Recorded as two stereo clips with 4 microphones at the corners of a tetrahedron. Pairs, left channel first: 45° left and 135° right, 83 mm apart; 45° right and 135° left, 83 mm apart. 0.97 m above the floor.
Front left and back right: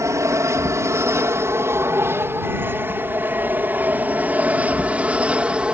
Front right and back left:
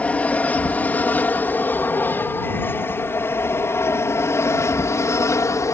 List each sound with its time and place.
0.0 s an aircraft: 110° right; by 5.8 s 65° right